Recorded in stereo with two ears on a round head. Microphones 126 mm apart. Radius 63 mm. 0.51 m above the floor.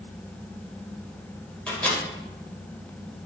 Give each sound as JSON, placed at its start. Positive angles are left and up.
{"t": 1.7, "sound": "a microwave", "side_deg": 10, "distance_m": 2.0}